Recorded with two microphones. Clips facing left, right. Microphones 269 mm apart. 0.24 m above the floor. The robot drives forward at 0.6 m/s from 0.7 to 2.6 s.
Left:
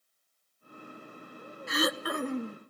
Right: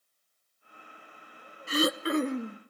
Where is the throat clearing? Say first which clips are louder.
Right 4 dB; 35° right (ahead or behind), 0.6 m; by 2.6 s 20° right (ahead or behind), 1.1 m.